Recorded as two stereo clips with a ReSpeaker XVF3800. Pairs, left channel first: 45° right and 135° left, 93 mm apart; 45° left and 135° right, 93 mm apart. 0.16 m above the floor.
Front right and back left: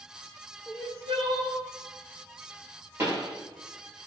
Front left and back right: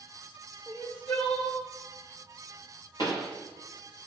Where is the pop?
75° left, 4 m.